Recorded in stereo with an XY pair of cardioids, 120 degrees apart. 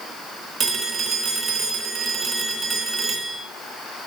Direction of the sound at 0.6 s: 45° right.